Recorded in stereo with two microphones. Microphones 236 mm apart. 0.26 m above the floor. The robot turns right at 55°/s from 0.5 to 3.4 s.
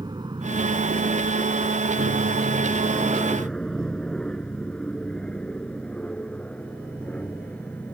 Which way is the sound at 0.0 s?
15° right (ahead or behind).